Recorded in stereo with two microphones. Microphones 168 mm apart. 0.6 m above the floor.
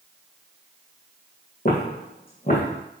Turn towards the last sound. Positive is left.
turn(degrees=60)  # may be behind; listen again after turning